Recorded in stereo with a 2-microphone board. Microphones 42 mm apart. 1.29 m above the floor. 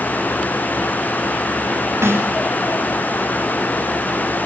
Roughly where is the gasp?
I don't hear a gasp.